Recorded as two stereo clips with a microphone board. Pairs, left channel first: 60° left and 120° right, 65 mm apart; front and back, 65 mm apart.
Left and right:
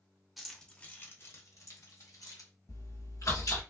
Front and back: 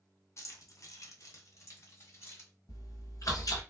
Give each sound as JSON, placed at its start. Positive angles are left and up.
{"t": 0.4, "sound": "keys jangling", "azimuth_deg": -35, "distance_m": 0.7}
{"t": 2.7, "sound": "chewing", "azimuth_deg": 30, "distance_m": 1.3}